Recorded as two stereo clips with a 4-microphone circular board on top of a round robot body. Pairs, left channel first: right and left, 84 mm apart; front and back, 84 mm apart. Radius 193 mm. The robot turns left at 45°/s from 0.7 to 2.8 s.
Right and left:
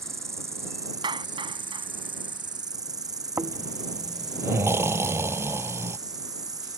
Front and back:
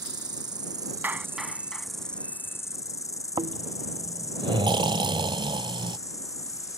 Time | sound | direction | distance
0.0 | an insect | 145° left | ?
1.0 | a clap | 110° left | ?
3.4 | snoring | 150° left | ?